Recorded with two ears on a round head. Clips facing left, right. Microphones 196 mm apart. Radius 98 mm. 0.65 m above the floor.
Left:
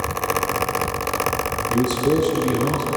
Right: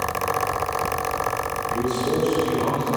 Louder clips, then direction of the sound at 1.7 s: Left 5 dB; 55° left (ahead or behind).